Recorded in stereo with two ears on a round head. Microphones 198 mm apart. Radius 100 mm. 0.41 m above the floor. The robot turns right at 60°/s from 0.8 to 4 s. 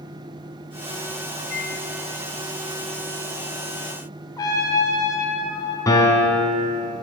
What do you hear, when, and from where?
1.5 s a microwave: 60° left (ahead or behind), 2 m
4.4 s a trumpet: 15° left (ahead or behind), 1.7 m
5.9 s a piano: 15° left (ahead or behind), 1.4 m